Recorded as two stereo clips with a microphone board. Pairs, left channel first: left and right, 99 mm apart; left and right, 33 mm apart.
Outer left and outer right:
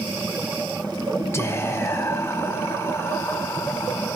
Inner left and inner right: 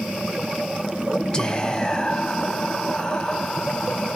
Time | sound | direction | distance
1.3 | whispering | 25° left (ahead or behind) | 0.9 m